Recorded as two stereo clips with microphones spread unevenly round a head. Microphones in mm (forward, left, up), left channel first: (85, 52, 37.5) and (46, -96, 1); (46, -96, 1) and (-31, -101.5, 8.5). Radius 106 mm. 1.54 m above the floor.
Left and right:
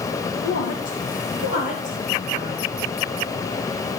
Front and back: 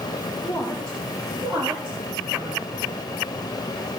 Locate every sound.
0.4 s a woman speaking: 80° left, 2 m; by 2.8 s 135° left, 3 m